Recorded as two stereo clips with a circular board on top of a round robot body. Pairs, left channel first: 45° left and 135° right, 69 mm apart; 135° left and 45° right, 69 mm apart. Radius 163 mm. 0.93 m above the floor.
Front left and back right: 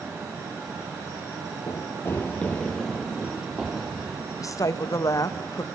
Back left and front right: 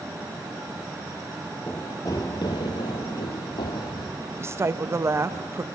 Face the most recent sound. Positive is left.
turn(degrees=5)